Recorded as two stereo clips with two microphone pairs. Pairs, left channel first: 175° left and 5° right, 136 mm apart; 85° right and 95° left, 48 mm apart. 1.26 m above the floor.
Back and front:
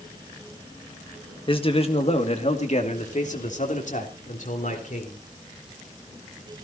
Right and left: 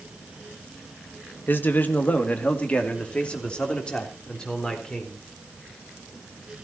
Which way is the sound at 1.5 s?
135° right.